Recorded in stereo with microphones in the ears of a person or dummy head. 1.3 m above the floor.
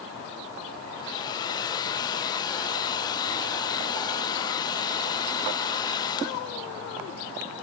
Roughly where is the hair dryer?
Left.